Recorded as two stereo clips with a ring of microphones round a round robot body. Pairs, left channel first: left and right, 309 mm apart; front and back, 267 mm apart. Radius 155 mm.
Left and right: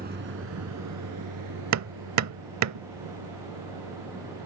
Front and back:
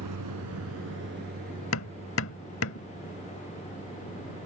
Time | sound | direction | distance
0.0 | a vehicle | 155° right | ?
1.7 | hammering | 50° right | ?